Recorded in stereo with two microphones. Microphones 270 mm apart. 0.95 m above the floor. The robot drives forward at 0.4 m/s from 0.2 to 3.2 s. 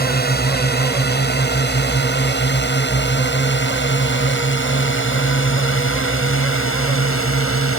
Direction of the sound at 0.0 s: 35° left (ahead or behind).